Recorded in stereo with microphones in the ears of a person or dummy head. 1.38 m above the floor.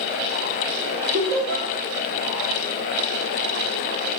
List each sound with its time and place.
1.1 s laughter: 45° right (ahead or behind), 0.6 m